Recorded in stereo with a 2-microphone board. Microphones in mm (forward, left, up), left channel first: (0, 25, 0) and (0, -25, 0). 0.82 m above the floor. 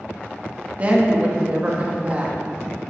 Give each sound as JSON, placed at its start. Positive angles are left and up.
{"t": 0.8, "sound": "a woman speaking", "side_deg": -30, "distance_m": 1.2}